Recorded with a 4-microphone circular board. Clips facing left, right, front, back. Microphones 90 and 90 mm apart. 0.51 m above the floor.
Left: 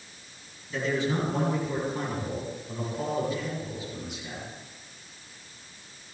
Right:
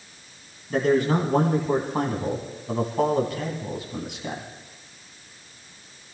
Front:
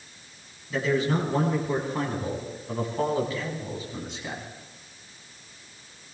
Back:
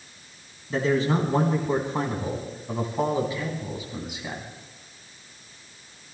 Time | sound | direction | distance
0.7 | a man speaking | 130° right | 4.5 m